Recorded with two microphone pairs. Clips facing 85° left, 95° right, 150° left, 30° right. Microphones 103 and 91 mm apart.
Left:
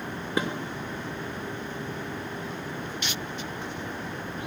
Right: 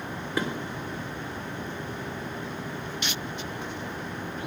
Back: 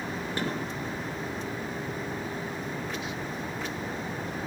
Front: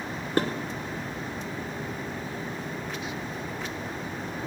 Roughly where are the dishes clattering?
Ahead.